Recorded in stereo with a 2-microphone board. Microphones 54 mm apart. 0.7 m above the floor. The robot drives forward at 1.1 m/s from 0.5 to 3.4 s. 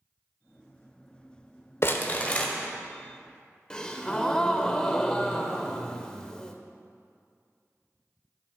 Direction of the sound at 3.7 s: 15° left (ahead or behind).